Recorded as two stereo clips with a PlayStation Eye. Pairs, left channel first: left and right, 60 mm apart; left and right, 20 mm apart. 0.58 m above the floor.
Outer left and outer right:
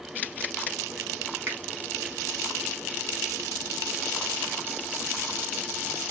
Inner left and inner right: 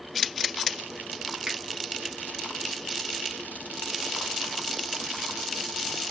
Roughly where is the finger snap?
Right.